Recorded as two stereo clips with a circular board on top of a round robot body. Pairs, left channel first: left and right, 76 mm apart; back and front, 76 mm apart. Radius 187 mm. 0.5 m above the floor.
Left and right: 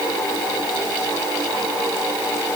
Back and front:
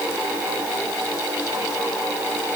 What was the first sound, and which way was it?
Only background noise.